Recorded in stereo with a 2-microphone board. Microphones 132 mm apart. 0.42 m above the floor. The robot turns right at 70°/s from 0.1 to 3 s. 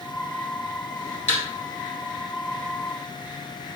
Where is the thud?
80° left, 2.0 m; by 1.4 s 70° left (ahead or behind), 2.0 m.